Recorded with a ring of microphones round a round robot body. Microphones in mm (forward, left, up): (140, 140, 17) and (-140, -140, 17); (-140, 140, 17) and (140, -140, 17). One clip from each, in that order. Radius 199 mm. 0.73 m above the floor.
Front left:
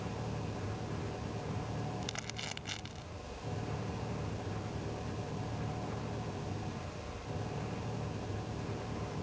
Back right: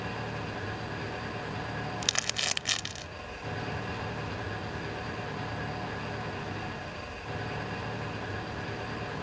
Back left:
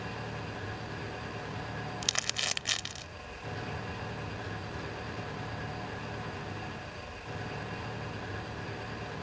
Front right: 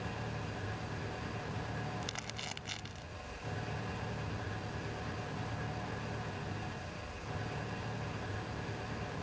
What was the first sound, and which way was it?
An engine running, 150° right.